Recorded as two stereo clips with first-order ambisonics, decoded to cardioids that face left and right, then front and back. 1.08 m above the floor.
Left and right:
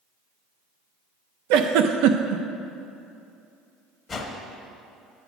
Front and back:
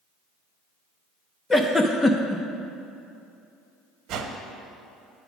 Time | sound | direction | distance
1.5 | a giggle | 80° right | 0.6 m
4.1 | a whoosh | 165° left | 1.0 m